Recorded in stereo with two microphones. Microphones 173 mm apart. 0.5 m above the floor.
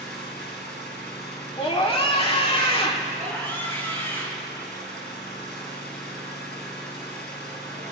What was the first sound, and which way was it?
An engine running, 65° left (ahead or behind).